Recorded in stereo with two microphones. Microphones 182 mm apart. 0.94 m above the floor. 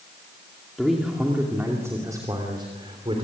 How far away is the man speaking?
About 2.5 m.